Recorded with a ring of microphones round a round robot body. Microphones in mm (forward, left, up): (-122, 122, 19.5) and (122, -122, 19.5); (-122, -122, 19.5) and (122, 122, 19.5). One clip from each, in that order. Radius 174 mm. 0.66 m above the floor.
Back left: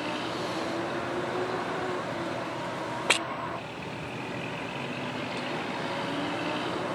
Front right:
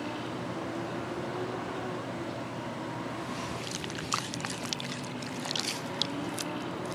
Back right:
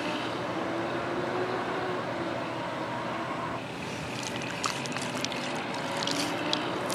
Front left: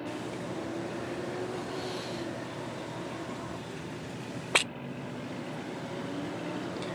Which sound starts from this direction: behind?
A vehicle, at 0.0 s.